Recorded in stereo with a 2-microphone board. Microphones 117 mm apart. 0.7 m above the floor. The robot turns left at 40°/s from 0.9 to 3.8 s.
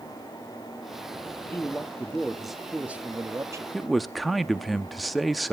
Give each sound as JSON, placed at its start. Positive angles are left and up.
{"t": 1.5, "sound": "a man speaking", "azimuth_deg": 35, "distance_m": 1.3}
{"t": 3.7, "sound": "a man speaking", "side_deg": 0, "distance_m": 0.8}